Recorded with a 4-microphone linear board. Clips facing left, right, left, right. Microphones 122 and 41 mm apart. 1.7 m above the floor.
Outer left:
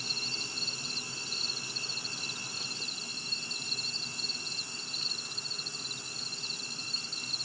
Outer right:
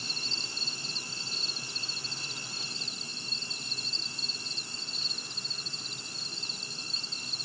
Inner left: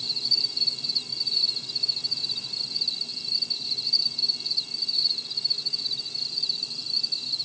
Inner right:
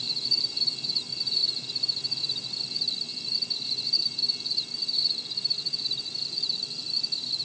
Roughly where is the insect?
Right.